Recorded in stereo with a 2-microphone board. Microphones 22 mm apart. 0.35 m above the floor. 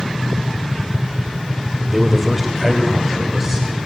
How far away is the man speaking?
About 0.9 m.